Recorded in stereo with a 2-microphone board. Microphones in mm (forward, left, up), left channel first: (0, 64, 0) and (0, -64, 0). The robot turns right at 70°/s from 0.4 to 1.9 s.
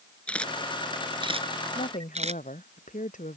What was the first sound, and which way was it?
A camera shutter, 10° left (ahead or behind).